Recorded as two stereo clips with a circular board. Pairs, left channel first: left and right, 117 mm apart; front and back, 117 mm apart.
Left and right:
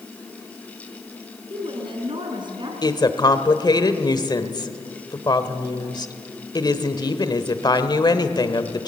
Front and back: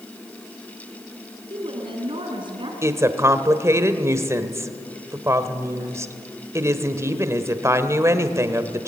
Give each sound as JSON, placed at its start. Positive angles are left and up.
{"t": 1.5, "sound": "a woman speaking", "azimuth_deg": -135, "distance_m": 4.5}
{"t": 2.8, "sound": "a woman speaking", "azimuth_deg": 125, "distance_m": 1.4}